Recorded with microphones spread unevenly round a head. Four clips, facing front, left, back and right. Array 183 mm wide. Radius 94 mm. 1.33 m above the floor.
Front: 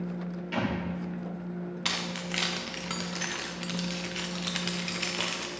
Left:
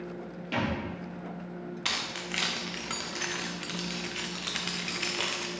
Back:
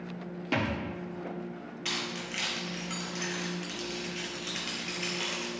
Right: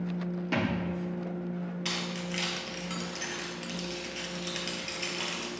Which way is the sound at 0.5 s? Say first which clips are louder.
Even, back 1 dB; 155° right.